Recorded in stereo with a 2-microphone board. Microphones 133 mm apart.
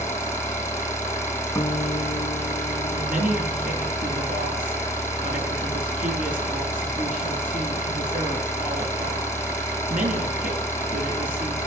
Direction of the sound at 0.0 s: 20° left (ahead or behind).